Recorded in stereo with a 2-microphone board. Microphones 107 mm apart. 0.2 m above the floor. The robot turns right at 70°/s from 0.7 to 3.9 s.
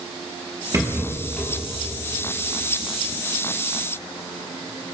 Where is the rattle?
30° right, 5.5 m; by 1.5 s 25° left, 5.5 m.